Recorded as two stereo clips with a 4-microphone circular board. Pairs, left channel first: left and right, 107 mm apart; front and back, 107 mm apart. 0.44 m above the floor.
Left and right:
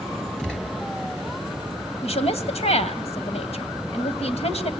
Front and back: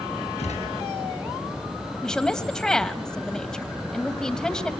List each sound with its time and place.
0.4 s a gunshot: 10° left, 5 m
2.0 s a woman speaking: 85° left, 2.5 m